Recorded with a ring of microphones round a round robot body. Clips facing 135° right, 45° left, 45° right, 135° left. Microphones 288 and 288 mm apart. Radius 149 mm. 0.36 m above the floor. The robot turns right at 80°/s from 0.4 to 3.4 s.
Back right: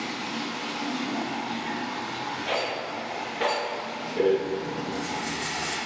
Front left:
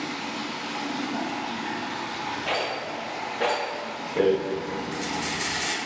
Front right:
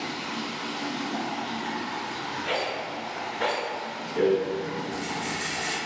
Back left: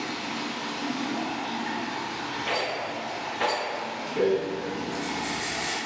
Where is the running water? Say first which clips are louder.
Even, back left 1 dB; 110° right, 0.9 m; by 5.9 s 130° left, 0.9 m.